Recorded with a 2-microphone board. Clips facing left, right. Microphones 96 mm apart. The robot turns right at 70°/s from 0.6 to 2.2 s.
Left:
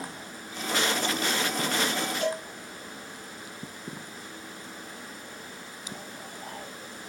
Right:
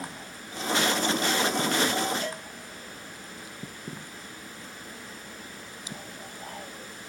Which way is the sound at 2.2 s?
75° left (ahead or behind).